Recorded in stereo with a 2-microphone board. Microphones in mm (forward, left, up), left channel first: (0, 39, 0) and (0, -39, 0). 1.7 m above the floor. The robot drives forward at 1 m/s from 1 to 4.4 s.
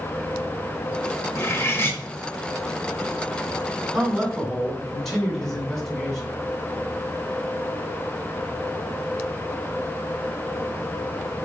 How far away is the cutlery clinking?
About 1.2 m.